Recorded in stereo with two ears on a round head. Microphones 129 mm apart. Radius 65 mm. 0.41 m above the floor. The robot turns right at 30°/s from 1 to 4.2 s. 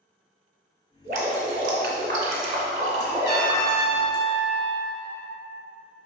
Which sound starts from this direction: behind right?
Dripping, at 1.0 s.